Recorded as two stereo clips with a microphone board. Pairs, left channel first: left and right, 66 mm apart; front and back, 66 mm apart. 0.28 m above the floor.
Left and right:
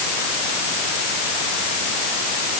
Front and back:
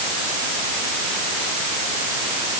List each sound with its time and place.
Only background noise.